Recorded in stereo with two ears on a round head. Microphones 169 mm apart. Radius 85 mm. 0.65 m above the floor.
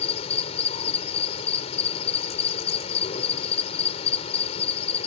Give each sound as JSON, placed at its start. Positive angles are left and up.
{"t": 0.0, "sound": "an insect", "side_deg": 35}